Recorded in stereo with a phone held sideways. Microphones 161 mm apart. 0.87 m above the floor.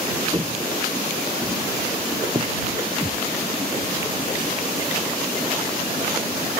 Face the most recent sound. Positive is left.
turn(degrees=15)  # may be behind; listen again after turning